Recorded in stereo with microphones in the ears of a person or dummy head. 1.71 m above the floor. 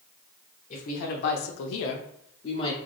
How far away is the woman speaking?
About 0.9 m.